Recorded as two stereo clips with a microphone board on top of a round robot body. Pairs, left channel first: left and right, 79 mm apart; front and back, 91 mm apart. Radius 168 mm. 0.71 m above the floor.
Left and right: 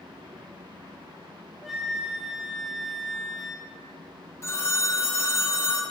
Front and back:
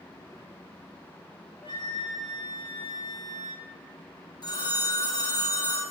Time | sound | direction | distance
1.6 | a flute | 5° right | 1.8 m
4.4 | a phone ringing | 35° left | 1.8 m